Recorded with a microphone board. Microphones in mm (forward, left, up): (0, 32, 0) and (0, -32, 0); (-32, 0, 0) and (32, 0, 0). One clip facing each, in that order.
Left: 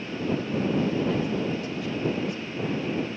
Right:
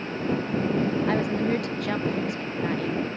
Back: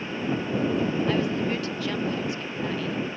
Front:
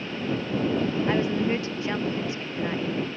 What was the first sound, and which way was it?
A woman speaking, 65° right.